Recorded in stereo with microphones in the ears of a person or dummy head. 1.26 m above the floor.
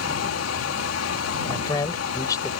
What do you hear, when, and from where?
0.0 s a fan: 75° left (ahead or behind)
1.4 s a man speaking: 25° left (ahead or behind)